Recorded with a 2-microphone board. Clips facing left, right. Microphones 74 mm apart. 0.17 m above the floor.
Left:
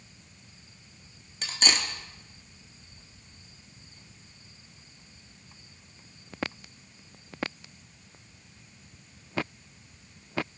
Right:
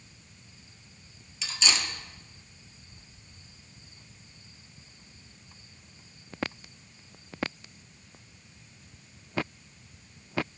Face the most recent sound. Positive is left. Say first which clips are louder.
# left 1 dB
turn(degrees=50)  # may be behind; listen again after turning